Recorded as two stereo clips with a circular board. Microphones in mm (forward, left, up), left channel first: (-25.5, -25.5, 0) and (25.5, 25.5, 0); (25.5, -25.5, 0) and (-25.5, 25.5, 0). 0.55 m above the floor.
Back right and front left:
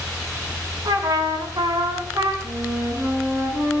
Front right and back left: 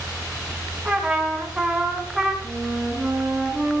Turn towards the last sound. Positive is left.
turn(degrees=65)